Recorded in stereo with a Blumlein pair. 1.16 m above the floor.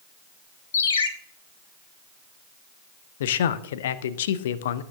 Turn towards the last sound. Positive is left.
turn(degrees=60)